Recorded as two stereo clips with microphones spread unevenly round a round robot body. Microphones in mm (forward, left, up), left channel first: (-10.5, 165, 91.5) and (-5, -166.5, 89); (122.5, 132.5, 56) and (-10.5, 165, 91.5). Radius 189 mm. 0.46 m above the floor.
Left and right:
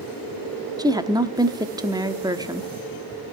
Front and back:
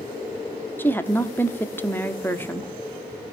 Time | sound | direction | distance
0.8 | a woman speaking | 25° right | 1.0 m